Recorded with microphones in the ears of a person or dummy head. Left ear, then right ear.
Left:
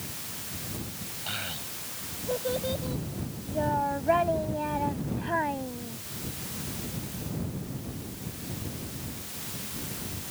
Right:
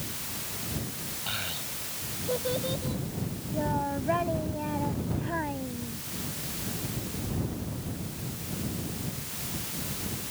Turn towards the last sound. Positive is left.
turn(degrees=30)  # may be behind; listen again after turning